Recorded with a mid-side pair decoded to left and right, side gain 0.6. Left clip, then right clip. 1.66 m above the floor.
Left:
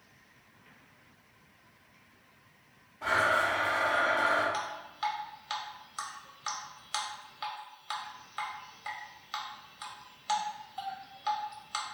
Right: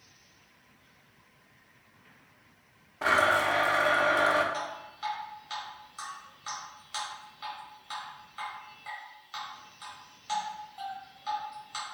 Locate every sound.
3.0 s a blender: 60° right, 0.6 m
4.5 s dripping: 40° left, 0.9 m